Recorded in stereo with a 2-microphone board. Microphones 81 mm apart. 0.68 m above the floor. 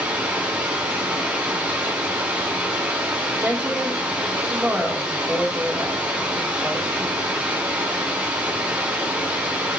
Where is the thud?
I don't hear a thud.